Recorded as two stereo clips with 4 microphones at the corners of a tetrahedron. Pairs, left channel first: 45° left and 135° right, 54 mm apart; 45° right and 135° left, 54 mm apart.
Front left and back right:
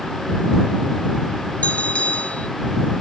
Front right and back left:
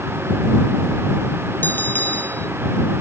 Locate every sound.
1.6 s a bell: 10° right